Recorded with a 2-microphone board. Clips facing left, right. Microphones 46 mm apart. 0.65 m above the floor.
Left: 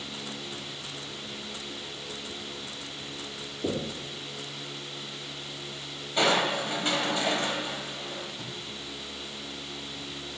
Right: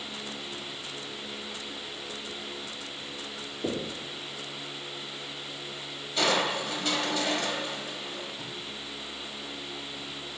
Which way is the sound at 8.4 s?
5° right (ahead or behind).